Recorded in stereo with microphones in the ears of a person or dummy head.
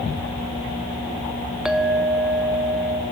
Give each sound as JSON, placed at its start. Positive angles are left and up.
{"t": 1.6, "sound": "a clink", "side_deg": -5, "distance_m": 0.6}